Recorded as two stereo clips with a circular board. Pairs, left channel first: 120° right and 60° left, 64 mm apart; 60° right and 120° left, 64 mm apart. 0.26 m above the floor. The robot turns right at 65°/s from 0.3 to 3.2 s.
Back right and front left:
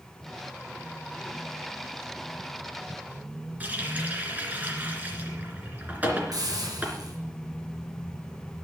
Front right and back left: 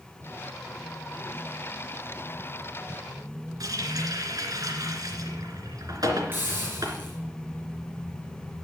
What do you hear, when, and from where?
3.6 s a running tap: 120° left, 2.5 m
6.3 s a hiss: 60° left, 5.5 m